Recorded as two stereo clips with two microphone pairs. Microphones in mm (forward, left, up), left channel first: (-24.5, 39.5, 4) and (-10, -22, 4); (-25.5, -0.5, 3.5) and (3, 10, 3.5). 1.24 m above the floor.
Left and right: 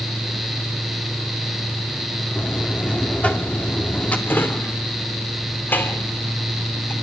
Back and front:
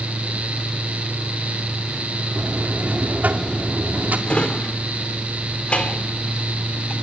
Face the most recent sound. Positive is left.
turn(degrees=155)